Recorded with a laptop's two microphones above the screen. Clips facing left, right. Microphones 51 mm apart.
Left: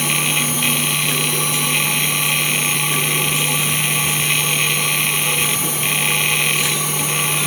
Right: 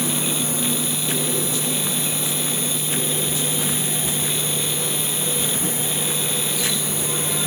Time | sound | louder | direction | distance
0.0 | a machine running | left 5 dB | 70° left (ahead or behind) | ?